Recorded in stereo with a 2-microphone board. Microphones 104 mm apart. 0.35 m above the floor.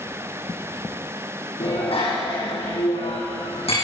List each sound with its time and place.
1.6 s a bicycle bell: 65° left (ahead or behind), 10 m; by 3.7 s 70° left (ahead or behind), 11 m